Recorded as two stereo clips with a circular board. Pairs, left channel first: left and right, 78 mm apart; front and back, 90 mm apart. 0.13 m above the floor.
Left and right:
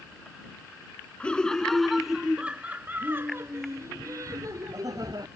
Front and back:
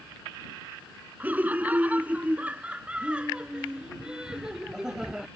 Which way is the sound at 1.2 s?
140° left.